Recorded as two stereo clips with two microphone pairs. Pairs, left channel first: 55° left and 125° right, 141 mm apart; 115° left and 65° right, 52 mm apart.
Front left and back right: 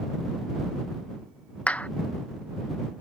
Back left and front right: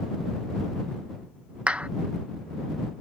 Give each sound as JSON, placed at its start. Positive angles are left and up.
{"t": 1.7, "sound": "a clap", "azimuth_deg": -20}